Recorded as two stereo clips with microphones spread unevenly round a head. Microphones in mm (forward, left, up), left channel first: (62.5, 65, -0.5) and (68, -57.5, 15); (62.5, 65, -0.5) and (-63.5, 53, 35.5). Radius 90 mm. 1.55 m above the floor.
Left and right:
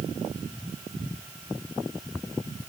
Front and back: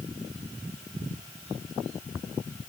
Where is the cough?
No cough in this recording.